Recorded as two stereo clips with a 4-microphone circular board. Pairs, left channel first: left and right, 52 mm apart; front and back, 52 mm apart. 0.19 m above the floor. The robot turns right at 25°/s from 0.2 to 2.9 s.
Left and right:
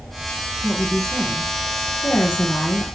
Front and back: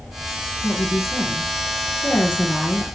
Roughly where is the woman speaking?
Ahead.